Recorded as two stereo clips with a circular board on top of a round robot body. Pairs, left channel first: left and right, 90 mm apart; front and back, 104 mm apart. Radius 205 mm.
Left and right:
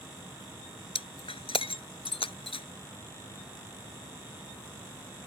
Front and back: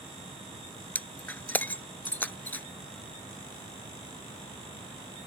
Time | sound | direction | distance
0.9 | breaking glass | 75° left | ?